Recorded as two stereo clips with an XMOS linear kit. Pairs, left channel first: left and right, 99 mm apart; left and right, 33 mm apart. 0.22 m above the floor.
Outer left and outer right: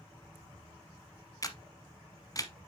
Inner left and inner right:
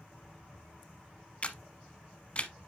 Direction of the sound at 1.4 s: 35° left (ahead or behind).